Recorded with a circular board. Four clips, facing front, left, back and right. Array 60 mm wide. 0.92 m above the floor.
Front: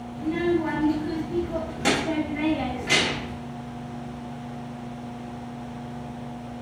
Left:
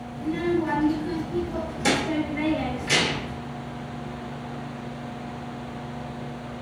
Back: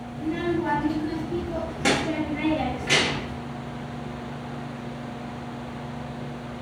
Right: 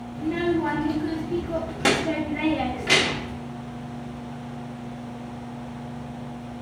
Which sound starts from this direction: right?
A child speaking, at 0.1 s.